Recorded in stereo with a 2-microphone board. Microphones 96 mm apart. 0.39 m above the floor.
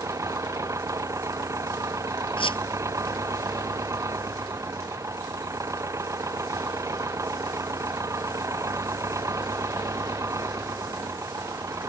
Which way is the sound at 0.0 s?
35° right (ahead or behind).